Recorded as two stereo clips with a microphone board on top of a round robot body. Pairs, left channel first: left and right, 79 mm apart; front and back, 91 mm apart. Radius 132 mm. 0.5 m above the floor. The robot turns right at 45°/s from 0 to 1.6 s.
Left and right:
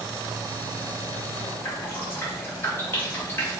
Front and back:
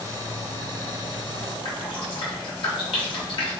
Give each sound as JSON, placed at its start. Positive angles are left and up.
{"t": 1.6, "sound": "dripping", "azimuth_deg": 25, "distance_m": 1.2}